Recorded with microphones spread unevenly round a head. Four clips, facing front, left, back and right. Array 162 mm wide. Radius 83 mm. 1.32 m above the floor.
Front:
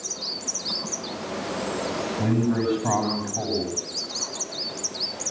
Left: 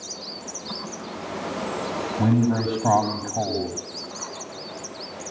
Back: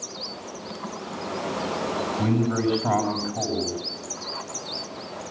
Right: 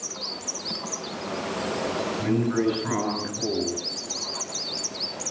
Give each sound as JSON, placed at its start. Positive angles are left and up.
{"t": 2.2, "sound": "a man speaking", "azimuth_deg": 100, "distance_m": 6.5}